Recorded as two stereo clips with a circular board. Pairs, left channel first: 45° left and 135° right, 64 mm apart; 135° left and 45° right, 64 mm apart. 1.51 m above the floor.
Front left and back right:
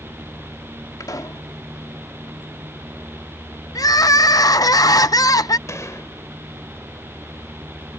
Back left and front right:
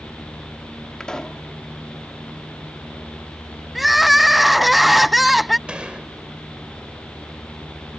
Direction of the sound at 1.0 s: 55° left.